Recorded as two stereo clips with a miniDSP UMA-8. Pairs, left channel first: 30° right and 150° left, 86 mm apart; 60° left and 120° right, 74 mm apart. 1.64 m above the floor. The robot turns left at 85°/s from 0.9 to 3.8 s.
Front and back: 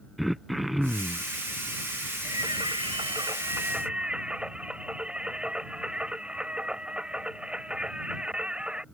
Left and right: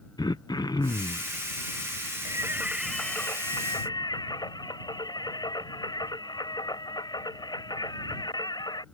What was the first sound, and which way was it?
Throat clearing, 60° left.